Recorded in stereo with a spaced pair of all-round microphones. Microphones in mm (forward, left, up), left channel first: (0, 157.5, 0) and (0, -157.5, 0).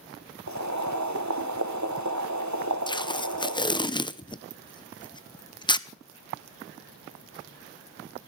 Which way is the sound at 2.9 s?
15° left (ahead or behind).